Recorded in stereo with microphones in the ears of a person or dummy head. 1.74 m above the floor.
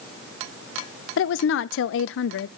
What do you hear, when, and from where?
1.2 s a woman speaking: 75° left (ahead or behind), 0.5 m